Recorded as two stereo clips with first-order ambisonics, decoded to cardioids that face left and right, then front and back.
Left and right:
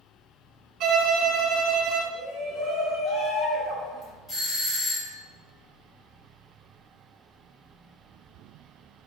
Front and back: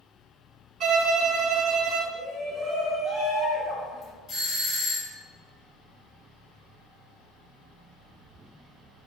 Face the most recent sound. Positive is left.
turn(degrees=25)